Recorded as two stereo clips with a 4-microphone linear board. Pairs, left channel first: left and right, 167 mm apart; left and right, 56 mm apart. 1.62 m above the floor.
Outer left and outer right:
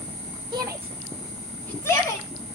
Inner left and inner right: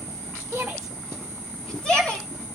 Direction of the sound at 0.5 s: 25° right (ahead or behind).